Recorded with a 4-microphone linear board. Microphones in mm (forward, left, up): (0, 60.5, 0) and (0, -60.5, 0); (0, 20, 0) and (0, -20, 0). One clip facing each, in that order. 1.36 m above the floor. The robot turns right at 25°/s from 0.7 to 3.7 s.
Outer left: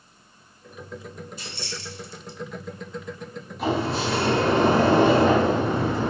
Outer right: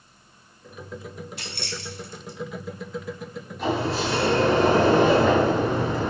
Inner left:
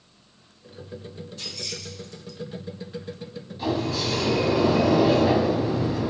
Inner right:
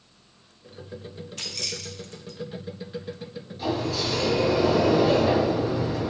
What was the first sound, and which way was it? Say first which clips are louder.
Keys jangling: outer right 1 dB, inner right 2 dB; 65° right (ahead or behind).